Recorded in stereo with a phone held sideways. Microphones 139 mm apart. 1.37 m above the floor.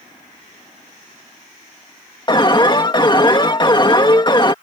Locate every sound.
2.3 s an alarm: 35° left (ahead or behind)